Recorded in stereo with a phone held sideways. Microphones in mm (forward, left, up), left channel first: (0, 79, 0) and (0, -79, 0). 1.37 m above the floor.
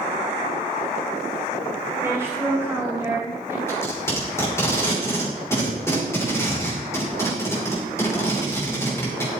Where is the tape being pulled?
15° left (ahead or behind), 6 m.